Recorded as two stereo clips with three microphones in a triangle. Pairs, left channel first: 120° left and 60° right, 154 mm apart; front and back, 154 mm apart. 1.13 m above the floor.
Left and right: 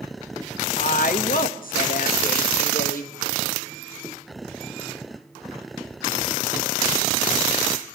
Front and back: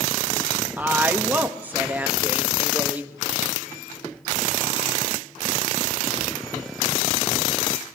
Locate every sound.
0.8 s a woman speaking: 105° left, 1.4 m